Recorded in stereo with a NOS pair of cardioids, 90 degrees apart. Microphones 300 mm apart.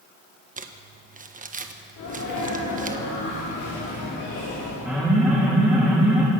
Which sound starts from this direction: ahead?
An alarm, at 4.8 s.